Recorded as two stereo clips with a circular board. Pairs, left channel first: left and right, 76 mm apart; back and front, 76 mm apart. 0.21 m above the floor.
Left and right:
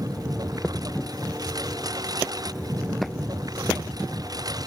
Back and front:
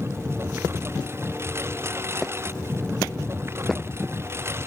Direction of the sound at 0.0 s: 55° right.